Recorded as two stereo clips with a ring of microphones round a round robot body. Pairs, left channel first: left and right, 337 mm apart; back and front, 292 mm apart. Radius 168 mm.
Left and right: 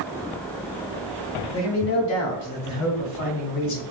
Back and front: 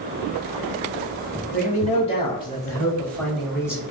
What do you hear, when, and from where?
1.5 s a man speaking: 125° left, 2.0 m; by 3.8 s 85° left, 2 m